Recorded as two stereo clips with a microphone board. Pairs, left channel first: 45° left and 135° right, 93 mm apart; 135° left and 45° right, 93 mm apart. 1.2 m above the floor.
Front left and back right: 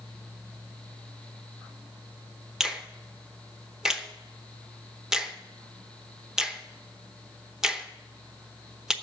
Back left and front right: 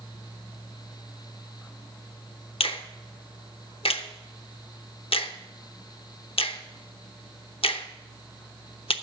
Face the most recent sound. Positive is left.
turn(degrees=140)